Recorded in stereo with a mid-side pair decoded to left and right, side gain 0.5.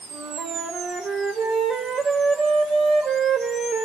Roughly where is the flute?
Ahead right.